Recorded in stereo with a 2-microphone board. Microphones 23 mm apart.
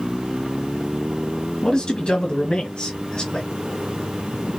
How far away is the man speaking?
About 1.5 m.